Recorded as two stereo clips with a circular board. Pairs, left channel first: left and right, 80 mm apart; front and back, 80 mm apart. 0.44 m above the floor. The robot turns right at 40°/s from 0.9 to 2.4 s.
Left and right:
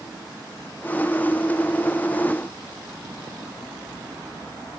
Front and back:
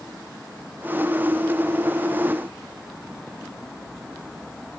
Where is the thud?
I don't hear a thud.